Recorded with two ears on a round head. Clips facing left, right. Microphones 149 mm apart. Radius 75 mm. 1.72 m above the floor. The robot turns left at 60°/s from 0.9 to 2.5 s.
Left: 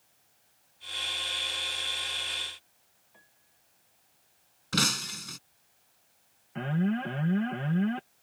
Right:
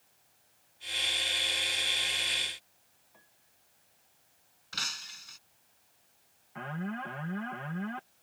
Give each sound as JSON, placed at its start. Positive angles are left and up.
{"t": 3.1, "sound": "a piano", "side_deg": 5}
{"t": 4.7, "sound": "breaking glass", "side_deg": 65}
{"t": 6.5, "sound": "an alarm", "side_deg": 35}